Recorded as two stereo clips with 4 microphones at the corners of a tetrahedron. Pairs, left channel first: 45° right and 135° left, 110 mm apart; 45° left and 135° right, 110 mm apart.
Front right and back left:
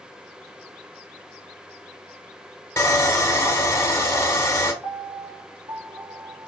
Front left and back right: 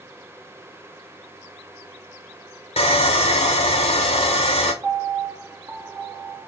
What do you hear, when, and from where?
2.8 s sawing: 20° left, 0.7 m
4.8 s a piano: 175° left, 0.7 m